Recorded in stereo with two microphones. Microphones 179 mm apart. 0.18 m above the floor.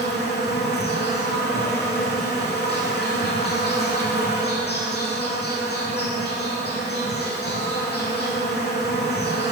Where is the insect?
70° left (ahead or behind), 1.2 m.